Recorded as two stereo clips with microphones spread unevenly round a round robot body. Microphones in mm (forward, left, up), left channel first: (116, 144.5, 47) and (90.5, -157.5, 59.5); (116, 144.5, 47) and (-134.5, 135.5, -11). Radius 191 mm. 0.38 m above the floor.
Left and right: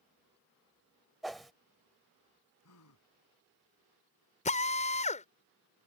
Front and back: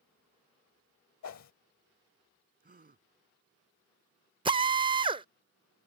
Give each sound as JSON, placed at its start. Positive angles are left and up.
{"t": 1.2, "sound": "a whoosh", "azimuth_deg": -5}
{"t": 2.6, "sound": "a gasp", "azimuth_deg": 130}
{"t": 4.5, "sound": "a drill", "azimuth_deg": 140}